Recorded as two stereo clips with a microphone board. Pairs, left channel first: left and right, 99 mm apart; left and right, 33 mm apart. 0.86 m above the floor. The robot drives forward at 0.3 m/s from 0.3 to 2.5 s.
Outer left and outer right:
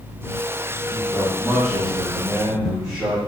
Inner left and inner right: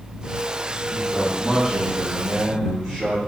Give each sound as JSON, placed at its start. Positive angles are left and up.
{"t": 0.9, "sound": "a man speaking", "side_deg": 0, "distance_m": 0.7}